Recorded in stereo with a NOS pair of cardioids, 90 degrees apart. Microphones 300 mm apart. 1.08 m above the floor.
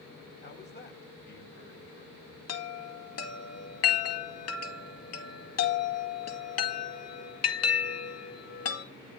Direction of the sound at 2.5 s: 55° left.